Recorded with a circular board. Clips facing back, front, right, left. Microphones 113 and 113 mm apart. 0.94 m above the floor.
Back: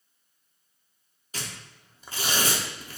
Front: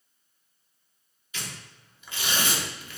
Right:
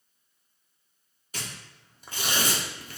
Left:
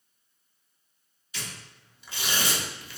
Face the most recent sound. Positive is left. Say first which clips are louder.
# back 1 dB, right 1 dB
turn(degrees=-130)